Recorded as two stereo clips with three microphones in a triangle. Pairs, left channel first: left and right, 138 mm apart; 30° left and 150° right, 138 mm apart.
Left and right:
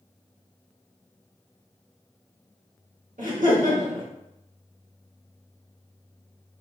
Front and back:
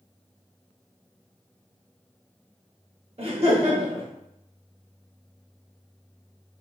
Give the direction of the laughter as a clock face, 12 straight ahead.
4 o'clock.